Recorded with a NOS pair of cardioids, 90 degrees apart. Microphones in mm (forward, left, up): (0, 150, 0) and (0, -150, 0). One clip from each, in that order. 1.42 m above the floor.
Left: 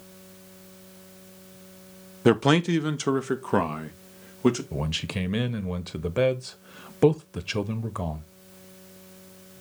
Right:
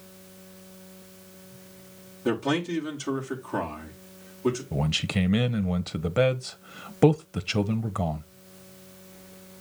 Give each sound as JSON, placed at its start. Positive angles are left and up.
{"t": 2.2, "sound": "a man speaking", "azimuth_deg": 55, "distance_m": 1.1}
{"t": 4.7, "sound": "a man speaking", "azimuth_deg": -10, "distance_m": 0.8}